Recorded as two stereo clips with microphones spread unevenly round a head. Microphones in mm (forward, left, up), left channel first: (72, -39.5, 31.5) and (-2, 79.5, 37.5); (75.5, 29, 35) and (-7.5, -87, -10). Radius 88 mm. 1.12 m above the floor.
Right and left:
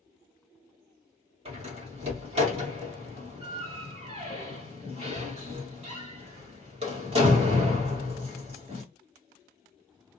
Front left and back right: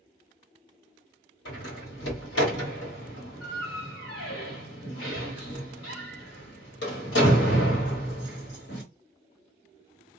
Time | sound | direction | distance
1.4 | a door slam | 75° left | 1.5 m